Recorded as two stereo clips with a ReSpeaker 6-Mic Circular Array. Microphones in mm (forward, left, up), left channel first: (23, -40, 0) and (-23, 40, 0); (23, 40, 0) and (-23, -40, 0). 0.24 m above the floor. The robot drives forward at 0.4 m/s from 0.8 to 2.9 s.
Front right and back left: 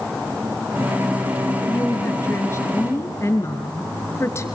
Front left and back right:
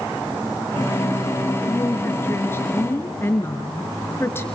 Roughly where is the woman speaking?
Ahead.